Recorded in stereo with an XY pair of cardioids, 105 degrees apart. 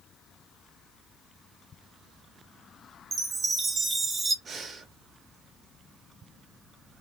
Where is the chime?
30° right, 0.9 m.